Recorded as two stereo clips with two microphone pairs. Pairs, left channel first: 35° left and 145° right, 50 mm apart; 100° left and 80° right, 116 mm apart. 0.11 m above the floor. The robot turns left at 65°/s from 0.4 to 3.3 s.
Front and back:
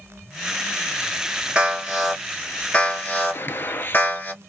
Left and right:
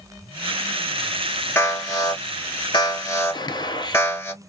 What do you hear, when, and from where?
1.6 s an alarm: 160° left, 1.1 m; by 4.3 s 45° left, 1.1 m
3.3 s a gunshot: 60° left, 0.5 m